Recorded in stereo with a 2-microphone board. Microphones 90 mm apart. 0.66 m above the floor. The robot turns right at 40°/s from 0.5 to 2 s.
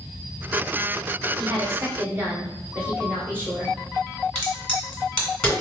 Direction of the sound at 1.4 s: 45° right (ahead or behind).